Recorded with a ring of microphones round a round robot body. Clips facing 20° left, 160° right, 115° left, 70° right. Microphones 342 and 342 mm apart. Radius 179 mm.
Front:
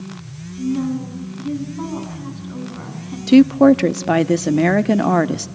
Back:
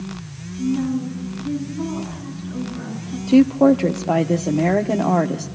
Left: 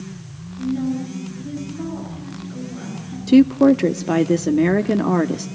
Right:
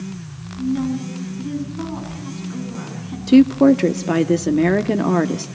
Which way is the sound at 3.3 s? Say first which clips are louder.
Front 3 dB, right 1 dB; 25° left.